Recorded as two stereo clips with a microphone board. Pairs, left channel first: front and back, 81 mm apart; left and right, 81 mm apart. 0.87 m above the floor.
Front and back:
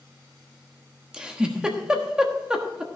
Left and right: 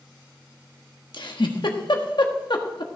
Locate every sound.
1.1 s a giggle: 100° left, 1.3 m